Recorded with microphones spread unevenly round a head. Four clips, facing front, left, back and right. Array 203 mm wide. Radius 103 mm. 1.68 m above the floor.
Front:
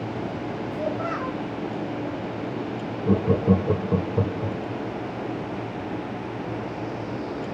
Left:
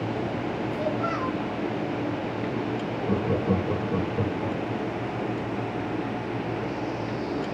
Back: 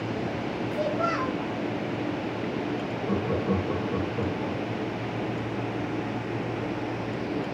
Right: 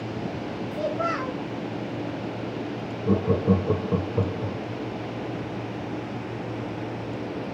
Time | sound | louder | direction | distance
0.7 | a child speaking | right 3 dB, back 2 dB | 125° right | 2.5 m
3.1 | laughter | right 4 dB, front 7 dB | 35° right | 1.8 m